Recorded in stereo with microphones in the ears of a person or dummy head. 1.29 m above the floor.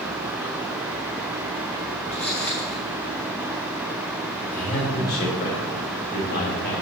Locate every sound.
2.1 s footsteps: 5° left (ahead or behind), 1.9 m
4.5 s a man speaking: 45° left (ahead or behind), 2.5 m